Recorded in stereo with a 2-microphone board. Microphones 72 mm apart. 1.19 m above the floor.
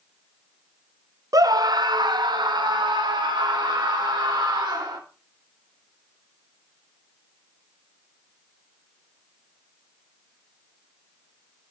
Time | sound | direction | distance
1.3 | a scream | 55° right (ahead or behind) | 0.7 m